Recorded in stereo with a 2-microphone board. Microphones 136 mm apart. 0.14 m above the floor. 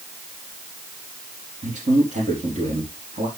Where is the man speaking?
65° right (ahead or behind), 5 m.